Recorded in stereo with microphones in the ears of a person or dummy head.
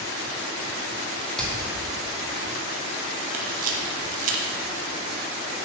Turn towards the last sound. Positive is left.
turn(degrees=-45)  # may be behind; listen again after turning